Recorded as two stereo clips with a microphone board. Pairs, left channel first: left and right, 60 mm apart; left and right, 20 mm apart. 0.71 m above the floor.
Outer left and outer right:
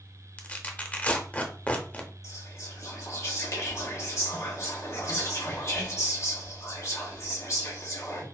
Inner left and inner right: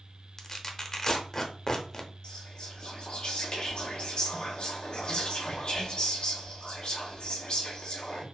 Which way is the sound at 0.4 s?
25° left (ahead or behind).